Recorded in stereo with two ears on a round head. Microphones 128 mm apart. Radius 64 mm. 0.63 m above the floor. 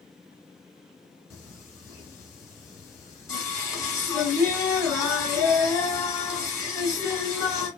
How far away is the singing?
About 1.1 m.